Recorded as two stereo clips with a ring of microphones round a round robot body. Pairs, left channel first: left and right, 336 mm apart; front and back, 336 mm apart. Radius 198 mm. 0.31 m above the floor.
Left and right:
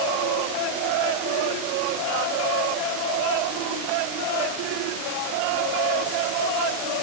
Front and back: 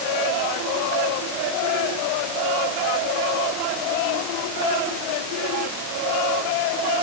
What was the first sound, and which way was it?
Only background noise.